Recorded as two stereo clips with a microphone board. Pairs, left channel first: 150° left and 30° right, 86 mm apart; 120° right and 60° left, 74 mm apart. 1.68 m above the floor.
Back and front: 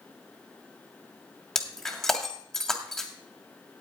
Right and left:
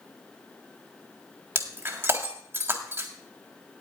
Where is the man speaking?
I don't hear a man speaking.